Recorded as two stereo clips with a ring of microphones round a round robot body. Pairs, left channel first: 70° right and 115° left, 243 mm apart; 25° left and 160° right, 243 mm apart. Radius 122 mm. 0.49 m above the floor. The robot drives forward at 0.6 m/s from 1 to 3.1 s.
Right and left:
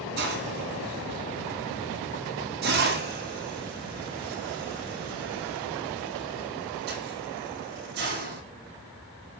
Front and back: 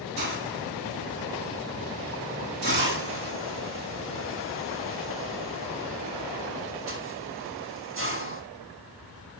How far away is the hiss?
About 6 m.